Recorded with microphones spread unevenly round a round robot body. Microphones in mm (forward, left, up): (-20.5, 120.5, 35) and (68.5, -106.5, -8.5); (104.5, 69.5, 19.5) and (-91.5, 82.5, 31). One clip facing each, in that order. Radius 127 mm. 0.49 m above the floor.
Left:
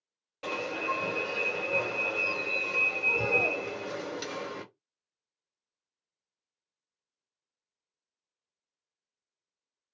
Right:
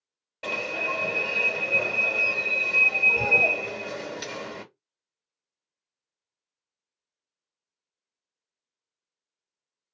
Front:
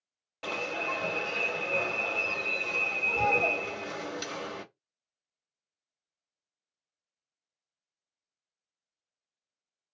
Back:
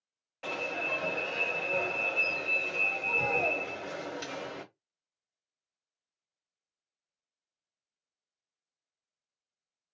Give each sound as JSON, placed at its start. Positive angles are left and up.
{"t": 0.4, "sound": "an alarm", "azimuth_deg": 30, "distance_m": 1.6}